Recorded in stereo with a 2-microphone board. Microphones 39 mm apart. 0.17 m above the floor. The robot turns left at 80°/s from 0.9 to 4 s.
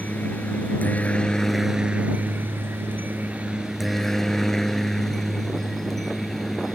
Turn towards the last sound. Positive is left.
turn(degrees=5)  # may be behind; listen again after turning